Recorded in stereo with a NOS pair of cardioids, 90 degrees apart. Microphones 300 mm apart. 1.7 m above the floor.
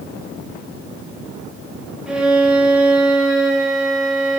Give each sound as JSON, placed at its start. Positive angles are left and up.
{"t": 2.1, "sound": "a violin", "azimuth_deg": -5, "distance_m": 3.0}